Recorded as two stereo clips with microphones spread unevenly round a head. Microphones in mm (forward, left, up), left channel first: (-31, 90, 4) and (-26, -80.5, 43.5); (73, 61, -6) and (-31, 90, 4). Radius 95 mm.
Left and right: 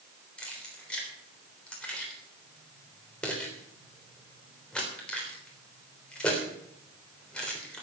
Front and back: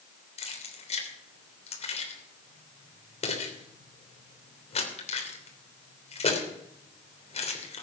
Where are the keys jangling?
5° left, 3 m.